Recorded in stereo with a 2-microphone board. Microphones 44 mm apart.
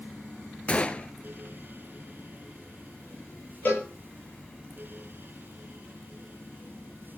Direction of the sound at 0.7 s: 30° left (ahead or behind).